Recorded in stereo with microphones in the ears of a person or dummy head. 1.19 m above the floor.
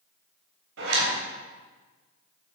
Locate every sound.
0.8 s a zipper: 85° right, 4 m